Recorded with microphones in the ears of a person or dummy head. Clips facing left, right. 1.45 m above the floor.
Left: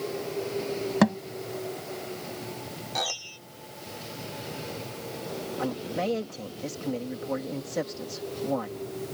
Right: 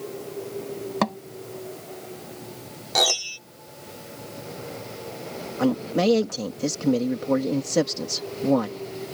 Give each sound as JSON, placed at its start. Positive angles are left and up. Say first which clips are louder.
{"t": 1.0, "sound": "a thud", "louder": "left 4 dB", "side_deg": 10}
{"t": 3.0, "sound": "a piano", "louder": "right 11 dB", "side_deg": -85}
{"t": 5.6, "sound": "a man speaking", "louder": "right 10 dB", "side_deg": -70}